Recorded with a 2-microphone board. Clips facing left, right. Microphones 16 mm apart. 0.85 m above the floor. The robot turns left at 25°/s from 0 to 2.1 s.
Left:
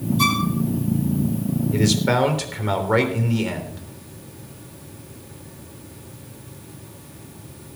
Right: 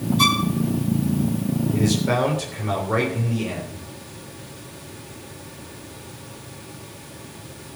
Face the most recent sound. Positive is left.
turn(degrees=30)  # may be behind; listen again after turning